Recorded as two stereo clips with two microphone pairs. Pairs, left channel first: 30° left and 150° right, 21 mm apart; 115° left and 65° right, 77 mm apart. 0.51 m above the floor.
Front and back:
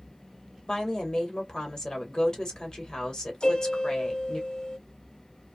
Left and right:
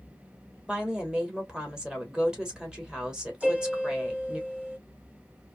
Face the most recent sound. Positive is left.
turn(degrees=5)